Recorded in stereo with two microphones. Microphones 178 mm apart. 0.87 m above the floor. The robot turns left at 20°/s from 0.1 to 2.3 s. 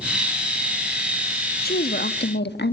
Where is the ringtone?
No ringtone in this recording.